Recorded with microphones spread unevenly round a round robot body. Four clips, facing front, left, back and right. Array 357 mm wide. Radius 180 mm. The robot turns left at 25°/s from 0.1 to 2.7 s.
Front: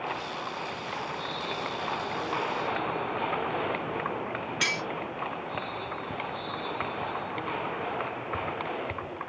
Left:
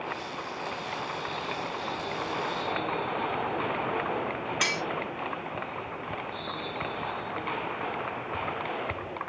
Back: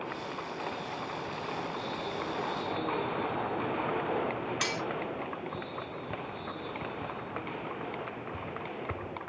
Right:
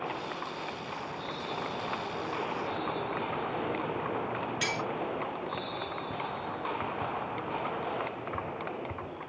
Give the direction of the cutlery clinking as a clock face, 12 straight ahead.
8 o'clock.